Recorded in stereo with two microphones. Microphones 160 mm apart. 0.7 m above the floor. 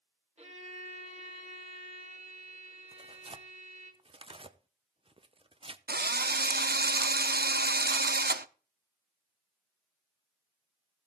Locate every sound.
0.4 s a violin: 40° right (ahead or behind), 2.5 m
2.9 s tearing paper: 35° right (ahead or behind), 0.5 m
5.9 s a drill: 80° right, 0.5 m